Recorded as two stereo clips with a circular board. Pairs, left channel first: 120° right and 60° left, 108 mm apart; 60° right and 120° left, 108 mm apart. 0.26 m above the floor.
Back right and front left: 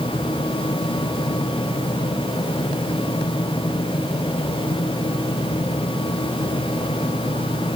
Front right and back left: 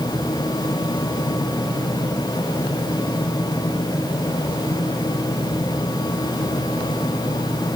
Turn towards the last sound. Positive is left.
No sound to turn to.